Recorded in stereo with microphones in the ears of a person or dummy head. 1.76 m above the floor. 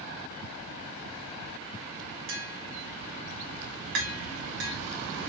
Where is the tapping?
60° right (ahead or behind), 2.0 m.